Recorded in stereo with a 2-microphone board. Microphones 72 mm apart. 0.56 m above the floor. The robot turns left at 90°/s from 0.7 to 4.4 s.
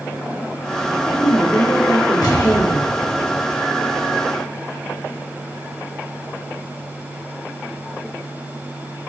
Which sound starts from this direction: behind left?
An explosion, at 2.2 s.